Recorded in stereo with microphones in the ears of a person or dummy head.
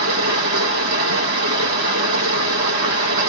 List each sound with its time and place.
0.0 s running water: 65° right (ahead or behind), 2 m